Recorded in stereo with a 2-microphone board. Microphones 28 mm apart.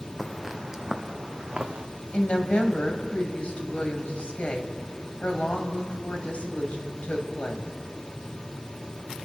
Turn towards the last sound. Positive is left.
turn(degrees=55)  # may be behind; listen again after turning